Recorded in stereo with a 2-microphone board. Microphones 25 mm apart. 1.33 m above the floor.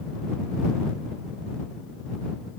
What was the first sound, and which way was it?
Only background noise.